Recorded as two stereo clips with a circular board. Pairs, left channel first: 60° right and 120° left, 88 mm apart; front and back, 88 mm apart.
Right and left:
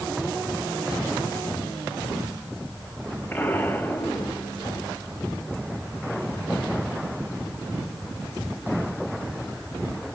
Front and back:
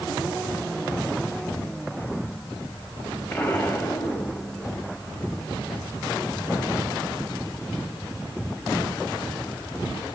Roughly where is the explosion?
Ahead right.